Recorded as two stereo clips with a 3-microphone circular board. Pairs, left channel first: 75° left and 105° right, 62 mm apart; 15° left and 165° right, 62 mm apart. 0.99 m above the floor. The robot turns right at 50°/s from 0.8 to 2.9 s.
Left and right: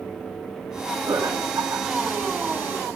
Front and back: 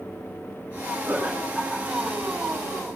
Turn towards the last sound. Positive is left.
turn(degrees=-20)